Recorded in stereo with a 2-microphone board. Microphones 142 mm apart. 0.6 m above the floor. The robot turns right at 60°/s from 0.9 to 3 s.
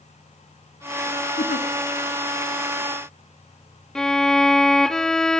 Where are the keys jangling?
I don't hear keys jangling.